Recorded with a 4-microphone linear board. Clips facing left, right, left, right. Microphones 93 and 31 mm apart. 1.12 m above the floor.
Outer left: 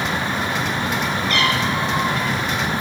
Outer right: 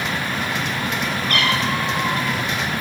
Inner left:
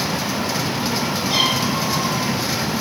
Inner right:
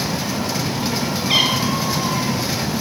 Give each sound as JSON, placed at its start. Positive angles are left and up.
{"t": 1.3, "sound": "a cat meowing", "side_deg": -55, "distance_m": 9.0}